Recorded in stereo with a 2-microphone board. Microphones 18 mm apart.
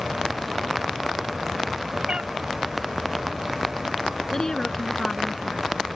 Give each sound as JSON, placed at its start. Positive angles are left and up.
{"t": 2.1, "sound": "a cat meowing", "side_deg": -55}
{"t": 4.3, "sound": "a woman speaking", "side_deg": 35}